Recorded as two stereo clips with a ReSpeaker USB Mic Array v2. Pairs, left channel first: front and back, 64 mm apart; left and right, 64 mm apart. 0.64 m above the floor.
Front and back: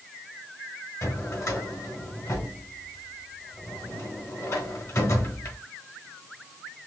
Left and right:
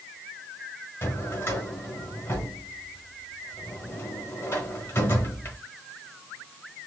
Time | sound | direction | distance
1.0 | a drawer | 40° left | 1.2 m